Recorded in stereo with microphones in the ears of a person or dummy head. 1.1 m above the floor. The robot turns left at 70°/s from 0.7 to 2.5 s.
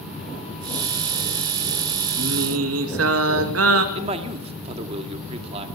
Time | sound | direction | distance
2.2 | singing | 65° right (ahead or behind) | 1.7 m
4.0 | a man speaking | 35° right (ahead or behind) | 2 m